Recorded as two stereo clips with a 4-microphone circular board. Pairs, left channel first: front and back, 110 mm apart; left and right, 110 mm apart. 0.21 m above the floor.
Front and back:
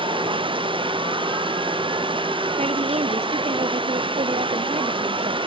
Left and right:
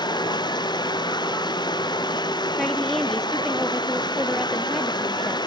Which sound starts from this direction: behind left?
Running water, at 0.0 s.